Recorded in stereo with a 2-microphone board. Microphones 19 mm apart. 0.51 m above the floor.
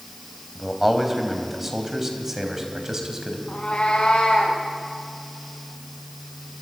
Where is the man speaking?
5° right (ahead or behind), 3.5 m; by 3.4 s 30° right (ahead or behind), 4 m.